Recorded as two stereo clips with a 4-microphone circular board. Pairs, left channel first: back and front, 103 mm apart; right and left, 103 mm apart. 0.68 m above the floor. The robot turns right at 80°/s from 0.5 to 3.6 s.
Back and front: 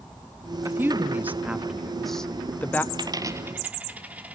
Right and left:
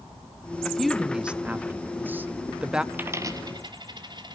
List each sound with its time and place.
0.6 s a woman speaking: 20° right, 0.6 m; by 2.8 s 155° left, 0.6 m
2.9 s a dropped coin: 20° left, 0.9 m; by 4.4 s 70° left, 0.9 m